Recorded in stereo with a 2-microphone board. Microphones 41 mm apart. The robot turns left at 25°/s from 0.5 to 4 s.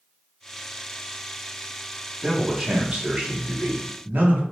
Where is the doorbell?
I don't hear a doorbell.